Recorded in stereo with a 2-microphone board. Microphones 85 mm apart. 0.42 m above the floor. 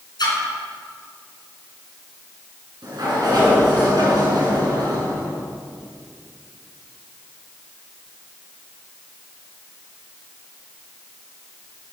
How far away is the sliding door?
About 5.5 m.